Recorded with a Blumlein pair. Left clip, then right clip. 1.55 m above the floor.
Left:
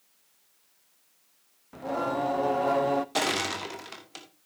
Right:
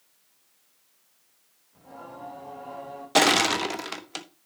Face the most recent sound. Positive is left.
turn(degrees=-25)